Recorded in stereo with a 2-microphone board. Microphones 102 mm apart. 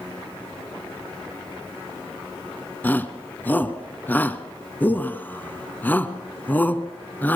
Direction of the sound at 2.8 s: 15° left (ahead or behind).